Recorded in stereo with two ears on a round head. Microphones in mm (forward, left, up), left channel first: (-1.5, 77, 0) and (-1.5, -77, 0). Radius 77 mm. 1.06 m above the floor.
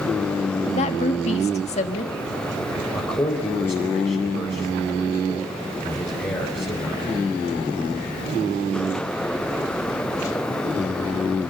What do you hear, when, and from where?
0.7 s a woman speaking: 40° left (ahead or behind), 1.5 m
2.9 s a man speaking: 15° left (ahead or behind), 3.5 m